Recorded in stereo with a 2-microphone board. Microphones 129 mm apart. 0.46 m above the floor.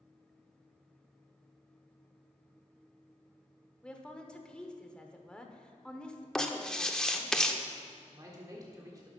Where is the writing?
5° left (ahead or behind), 0.7 m.